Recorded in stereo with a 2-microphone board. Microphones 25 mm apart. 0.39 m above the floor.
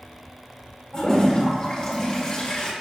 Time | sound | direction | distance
0.9 | a toilet flushing | 30° left (ahead or behind) | 1.8 m